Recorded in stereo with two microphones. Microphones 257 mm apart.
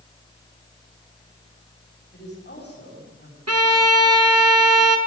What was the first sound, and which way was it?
A woman speaking, 40° left (ahead or behind).